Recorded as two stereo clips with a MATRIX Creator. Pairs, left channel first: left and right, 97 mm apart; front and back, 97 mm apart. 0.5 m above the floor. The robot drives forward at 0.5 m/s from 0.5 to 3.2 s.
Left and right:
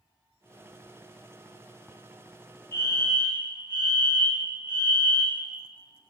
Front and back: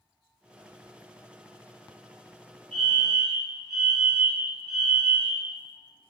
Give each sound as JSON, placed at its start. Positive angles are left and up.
{"t": 2.7, "sound": "a fire alarm", "azimuth_deg": 75, "distance_m": 2.0}